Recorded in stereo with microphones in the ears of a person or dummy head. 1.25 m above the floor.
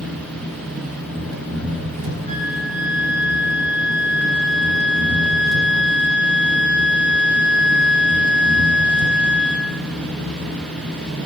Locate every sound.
0.0 s an engine running: 75° right (ahead or behind), 5 m
2.3 s a flute: 35° left (ahead or behind), 4 m